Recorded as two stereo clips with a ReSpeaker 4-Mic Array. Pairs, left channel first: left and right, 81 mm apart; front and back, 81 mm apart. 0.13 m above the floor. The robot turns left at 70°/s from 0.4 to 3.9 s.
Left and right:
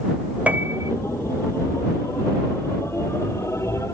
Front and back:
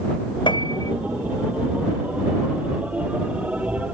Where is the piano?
15° right; by 0.9 s 50° right.